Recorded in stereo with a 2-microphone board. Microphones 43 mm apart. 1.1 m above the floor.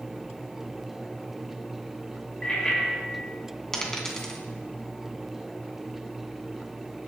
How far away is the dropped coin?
About 3 m.